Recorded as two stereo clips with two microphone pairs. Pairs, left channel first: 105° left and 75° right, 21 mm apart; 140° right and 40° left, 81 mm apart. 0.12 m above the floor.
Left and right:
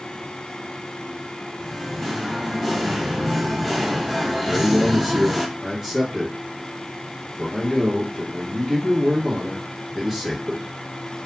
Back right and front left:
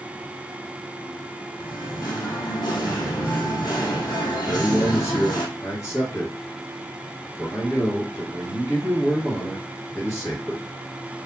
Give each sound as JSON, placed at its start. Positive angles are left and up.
{"t": 1.6, "sound": "singing", "azimuth_deg": -175, "distance_m": 1.2}
{"t": 4.5, "sound": "a man speaking", "azimuth_deg": -150, "distance_m": 2.0}